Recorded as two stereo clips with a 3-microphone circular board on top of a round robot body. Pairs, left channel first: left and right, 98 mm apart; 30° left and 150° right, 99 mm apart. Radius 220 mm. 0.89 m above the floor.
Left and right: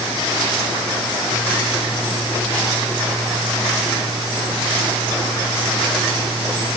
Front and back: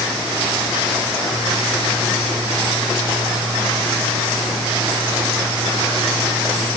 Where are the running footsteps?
No running footsteps in this recording.